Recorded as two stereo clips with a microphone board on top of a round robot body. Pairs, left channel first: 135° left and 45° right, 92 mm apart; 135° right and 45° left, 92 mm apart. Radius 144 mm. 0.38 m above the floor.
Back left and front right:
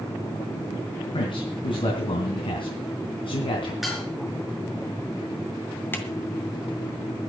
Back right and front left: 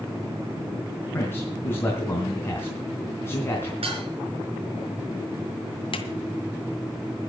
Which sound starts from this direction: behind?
A man speaking, at 1.1 s.